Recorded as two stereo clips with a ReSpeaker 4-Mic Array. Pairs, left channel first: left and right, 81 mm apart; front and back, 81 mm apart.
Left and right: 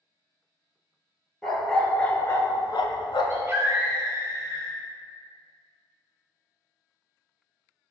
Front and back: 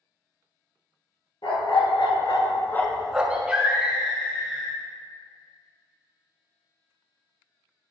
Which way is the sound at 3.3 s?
115° right.